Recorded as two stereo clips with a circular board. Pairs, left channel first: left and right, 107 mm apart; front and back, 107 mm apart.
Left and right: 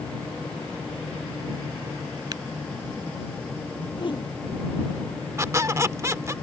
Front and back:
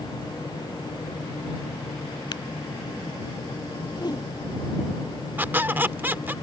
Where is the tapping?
40° right.